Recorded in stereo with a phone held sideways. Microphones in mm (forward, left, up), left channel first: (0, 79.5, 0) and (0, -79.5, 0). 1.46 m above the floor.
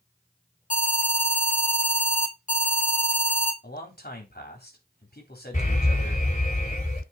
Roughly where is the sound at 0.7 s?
Left.